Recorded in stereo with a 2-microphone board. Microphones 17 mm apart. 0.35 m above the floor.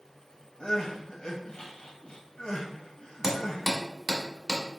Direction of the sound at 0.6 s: 70° left (ahead or behind).